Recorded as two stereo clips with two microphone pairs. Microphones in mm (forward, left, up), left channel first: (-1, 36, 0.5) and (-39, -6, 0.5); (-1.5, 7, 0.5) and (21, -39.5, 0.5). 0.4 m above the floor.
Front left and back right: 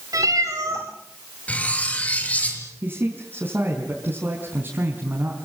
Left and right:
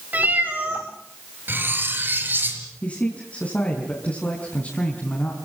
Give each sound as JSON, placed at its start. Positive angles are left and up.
{"t": 0.1, "sound": "a cat meowing", "azimuth_deg": -120, "distance_m": 9.0}
{"t": 1.5, "sound": "cutlery clinking", "azimuth_deg": -15, "distance_m": 5.0}
{"t": 2.8, "sound": "a man speaking", "azimuth_deg": 175, "distance_m": 4.5}